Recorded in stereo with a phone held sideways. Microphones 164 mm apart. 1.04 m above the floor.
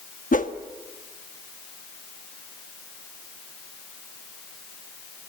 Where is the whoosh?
55° left (ahead or behind), 1.2 m.